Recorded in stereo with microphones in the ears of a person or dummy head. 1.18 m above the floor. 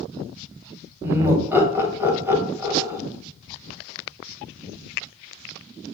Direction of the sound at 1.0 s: 15° right (ahead or behind).